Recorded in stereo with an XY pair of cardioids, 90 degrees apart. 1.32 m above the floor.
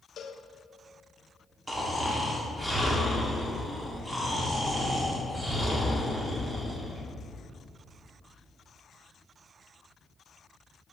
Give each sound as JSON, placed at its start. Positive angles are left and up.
{"t": 0.2, "sound": "a cowbell", "azimuth_deg": 70, "distance_m": 0.6}
{"t": 1.7, "sound": "snoring", "azimuth_deg": -25, "distance_m": 1.9}